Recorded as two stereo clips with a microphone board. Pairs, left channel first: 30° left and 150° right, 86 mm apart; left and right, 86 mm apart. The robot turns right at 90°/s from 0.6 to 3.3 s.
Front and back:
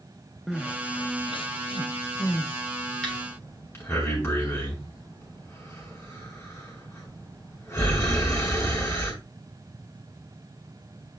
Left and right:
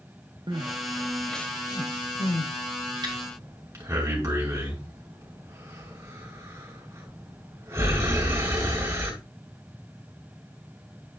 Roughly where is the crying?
Ahead right.